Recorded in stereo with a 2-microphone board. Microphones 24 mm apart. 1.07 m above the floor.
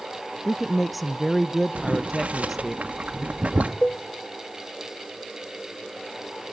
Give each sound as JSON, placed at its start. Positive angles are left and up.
{"t": 0.5, "sound": "a woman speaking", "side_deg": -5, "distance_m": 0.6}
{"t": 1.8, "sound": "boiling", "side_deg": -70, "distance_m": 1.4}
{"t": 3.8, "sound": "a cowbell", "side_deg": 60, "distance_m": 1.3}